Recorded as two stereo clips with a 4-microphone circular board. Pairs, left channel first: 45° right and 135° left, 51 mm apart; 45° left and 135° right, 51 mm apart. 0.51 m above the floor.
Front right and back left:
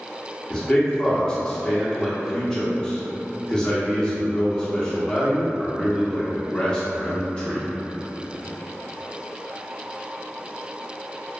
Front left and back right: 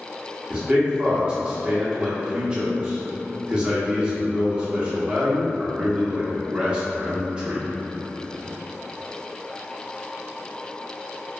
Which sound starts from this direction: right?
A man speaking, at 0.5 s.